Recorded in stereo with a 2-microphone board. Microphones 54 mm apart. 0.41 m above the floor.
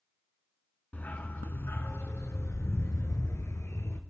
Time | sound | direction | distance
0.9 | a dog barking | 35° left (ahead or behind) | 1.7 m